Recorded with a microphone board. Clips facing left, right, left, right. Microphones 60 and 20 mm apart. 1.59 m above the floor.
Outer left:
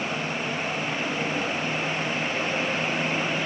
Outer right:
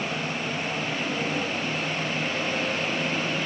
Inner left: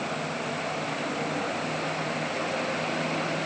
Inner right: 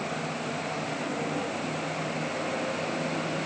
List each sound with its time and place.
Only background noise.